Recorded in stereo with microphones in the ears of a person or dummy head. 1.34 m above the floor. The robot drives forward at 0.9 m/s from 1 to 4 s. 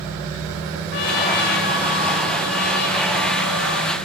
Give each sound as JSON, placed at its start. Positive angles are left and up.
{"t": 0.9, "sound": "a trumpet", "side_deg": 55, "distance_m": 3.0}